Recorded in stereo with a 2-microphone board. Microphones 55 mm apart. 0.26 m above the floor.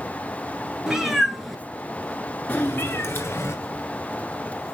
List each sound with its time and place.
0.9 s a cat meowing: 10° right (ahead or behind), 1.3 m; by 3.5 s 55° left (ahead or behind), 1.3 m